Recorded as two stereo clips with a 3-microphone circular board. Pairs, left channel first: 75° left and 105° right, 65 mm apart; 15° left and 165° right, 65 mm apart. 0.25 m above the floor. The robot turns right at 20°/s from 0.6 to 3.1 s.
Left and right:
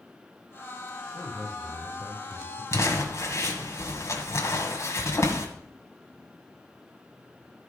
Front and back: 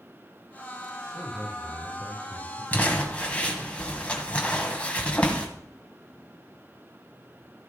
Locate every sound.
1.1 s a man speaking: 115° left, 5.5 m; by 2.6 s 145° left, 5.5 m
2.7 s crumpling: 70° left, 1.6 m; by 5.5 s 80° left, 1.6 m